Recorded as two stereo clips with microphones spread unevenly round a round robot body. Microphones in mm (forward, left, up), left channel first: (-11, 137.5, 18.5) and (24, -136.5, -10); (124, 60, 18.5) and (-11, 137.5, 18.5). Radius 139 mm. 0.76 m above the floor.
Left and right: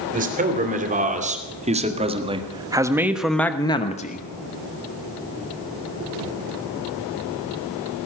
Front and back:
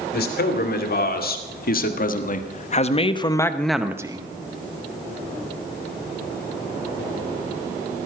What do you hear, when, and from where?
0.1 s a man speaking: 25° right, 3 m; by 4.3 s 135° left, 0.9 m